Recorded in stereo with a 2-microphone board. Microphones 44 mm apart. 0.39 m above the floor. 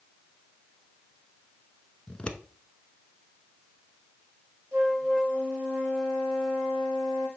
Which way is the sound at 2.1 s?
25° left (ahead or behind).